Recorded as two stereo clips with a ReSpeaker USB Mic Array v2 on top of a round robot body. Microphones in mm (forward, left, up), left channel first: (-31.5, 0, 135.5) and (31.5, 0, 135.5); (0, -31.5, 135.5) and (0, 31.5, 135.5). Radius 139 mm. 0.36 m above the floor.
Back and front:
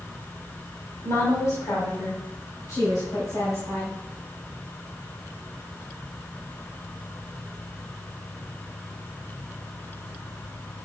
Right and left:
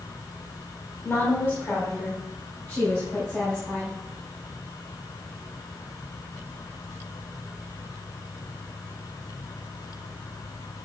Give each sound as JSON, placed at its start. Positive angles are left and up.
{"t": 1.0, "sound": "a woman speaking", "azimuth_deg": -150, "distance_m": 3.0}